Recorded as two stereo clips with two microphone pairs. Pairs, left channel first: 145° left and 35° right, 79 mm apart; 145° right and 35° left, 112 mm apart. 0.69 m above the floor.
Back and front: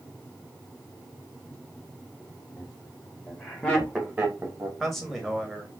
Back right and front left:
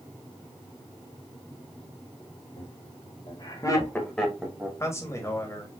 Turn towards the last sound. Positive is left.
turn(degrees=-130)